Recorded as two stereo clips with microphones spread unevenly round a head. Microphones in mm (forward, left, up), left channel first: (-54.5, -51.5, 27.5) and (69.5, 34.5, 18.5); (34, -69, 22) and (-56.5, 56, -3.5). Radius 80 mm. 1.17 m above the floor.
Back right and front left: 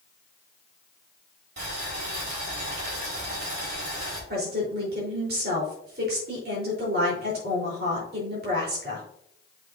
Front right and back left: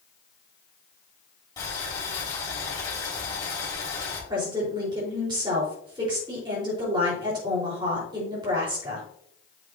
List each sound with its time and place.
1.6 s boiling: 15° left, 4.5 m
4.3 s a woman speaking: 60° left, 4 m